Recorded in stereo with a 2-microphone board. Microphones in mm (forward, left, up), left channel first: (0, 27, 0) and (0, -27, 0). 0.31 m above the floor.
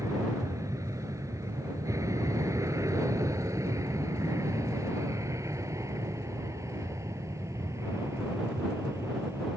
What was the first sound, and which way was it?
An aircraft, 75° right (ahead or behind).